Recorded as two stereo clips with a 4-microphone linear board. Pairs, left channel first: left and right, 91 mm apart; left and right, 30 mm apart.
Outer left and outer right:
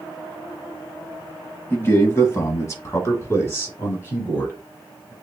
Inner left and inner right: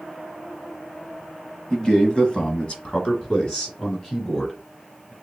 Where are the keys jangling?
I don't hear keys jangling.